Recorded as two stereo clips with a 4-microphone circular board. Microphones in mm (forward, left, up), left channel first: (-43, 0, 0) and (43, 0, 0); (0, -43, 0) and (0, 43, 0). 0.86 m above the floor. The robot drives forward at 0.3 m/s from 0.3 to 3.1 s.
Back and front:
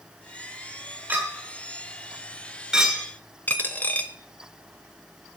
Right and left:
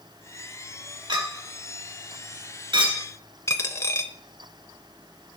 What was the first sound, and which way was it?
A clink, 65° left.